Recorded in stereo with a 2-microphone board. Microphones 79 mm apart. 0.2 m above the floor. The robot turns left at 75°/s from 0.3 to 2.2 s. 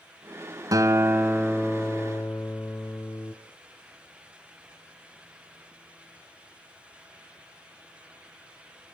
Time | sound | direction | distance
0.7 | a guitar | 120° right | 1.4 m